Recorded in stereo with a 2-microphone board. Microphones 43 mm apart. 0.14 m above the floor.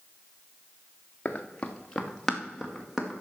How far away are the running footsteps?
About 1.3 m.